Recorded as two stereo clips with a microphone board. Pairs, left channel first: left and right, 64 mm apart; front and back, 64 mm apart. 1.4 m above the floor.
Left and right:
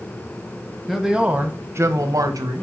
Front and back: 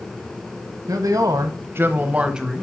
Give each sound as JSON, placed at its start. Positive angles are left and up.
{"t": 0.9, "sound": "a man speaking", "azimuth_deg": -175, "distance_m": 0.9}